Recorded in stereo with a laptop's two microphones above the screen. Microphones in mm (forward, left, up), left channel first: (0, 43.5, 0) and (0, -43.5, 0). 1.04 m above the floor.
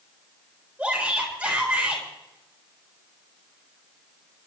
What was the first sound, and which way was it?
A shout, 20° right (ahead or behind).